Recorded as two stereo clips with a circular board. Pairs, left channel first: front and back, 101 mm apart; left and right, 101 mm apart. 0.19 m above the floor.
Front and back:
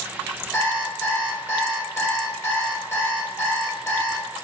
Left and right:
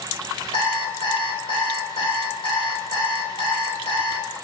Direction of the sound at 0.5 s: 65° left.